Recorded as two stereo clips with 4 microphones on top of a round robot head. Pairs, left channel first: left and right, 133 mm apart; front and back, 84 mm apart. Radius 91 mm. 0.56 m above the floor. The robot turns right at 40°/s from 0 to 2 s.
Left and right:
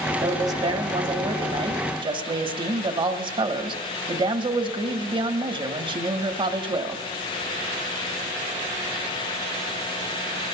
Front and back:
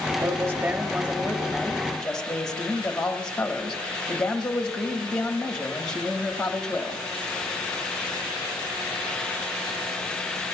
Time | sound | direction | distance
0.2 | a man speaking | 145° right | 1.3 m